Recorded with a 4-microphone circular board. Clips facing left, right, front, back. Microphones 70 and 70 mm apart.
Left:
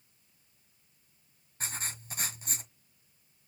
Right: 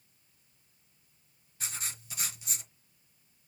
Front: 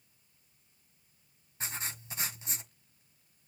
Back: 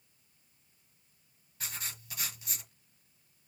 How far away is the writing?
About 1.5 m.